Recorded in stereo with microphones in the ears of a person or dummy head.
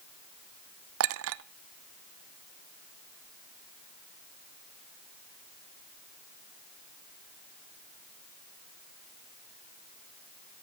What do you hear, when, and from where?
1.0 s a clink: 70° right (ahead or behind), 0.5 m